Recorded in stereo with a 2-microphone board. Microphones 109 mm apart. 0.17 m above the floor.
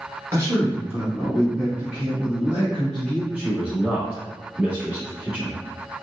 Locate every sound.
0.3 s a man speaking: 30° right (ahead or behind), 1.5 m; by 3.2 s 5° right (ahead or behind), 2 m
3.3 s a man speaking: 15° right (ahead or behind), 1.0 m